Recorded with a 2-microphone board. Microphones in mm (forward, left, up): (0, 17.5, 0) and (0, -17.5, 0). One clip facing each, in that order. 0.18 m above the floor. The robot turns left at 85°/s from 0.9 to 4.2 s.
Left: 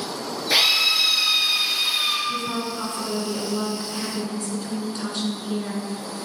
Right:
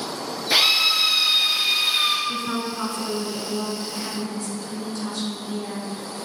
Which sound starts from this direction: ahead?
A drill, at 0.5 s.